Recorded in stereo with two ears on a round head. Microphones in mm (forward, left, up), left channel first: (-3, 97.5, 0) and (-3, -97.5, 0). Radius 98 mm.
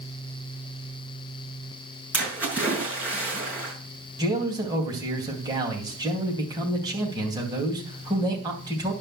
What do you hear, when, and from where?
2.1 s a splash: 5° right (ahead or behind), 6 m
4.2 s a man speaking: 20° right (ahead or behind), 3.5 m